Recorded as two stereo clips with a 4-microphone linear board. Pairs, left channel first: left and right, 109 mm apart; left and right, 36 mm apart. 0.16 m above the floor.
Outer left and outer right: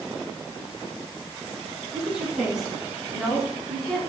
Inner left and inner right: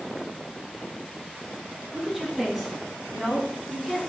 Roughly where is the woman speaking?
Centre.